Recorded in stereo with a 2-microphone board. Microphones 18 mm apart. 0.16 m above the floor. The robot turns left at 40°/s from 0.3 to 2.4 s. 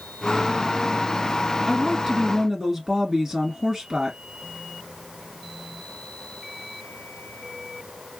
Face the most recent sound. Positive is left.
turn(degrees=-30)  # may be behind; listen again after turning